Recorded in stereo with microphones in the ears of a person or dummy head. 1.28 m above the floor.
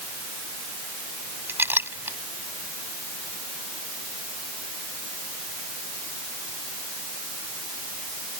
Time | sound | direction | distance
1.5 | a clink | 15° right (ahead or behind) | ?